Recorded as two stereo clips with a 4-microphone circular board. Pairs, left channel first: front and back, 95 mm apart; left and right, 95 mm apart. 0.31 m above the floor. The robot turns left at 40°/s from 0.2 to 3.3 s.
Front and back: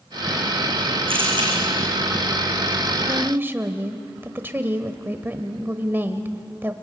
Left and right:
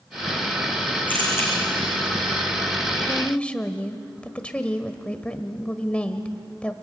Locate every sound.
1.1 s a camera shutter: 165° left, 7 m; by 1.5 s 145° left, 7 m
3.1 s a woman speaking: 160° left, 1.1 m; by 6.7 s 150° left, 1.1 m